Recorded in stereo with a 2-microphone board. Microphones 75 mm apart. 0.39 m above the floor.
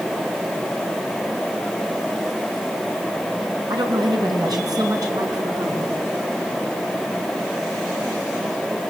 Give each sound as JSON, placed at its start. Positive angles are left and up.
{"t": 3.7, "sound": "a woman speaking", "side_deg": -70, "distance_m": 3.5}